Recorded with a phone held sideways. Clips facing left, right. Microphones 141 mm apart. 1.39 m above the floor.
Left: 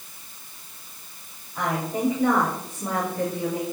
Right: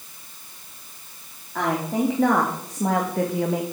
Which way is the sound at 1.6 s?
85° right.